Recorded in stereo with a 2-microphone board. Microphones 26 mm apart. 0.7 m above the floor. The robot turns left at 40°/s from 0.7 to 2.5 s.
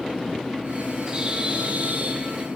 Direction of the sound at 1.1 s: 30° right.